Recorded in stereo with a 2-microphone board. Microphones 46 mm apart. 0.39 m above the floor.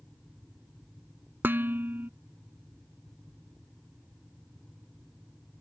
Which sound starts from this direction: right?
Dishes clattering, at 1.4 s.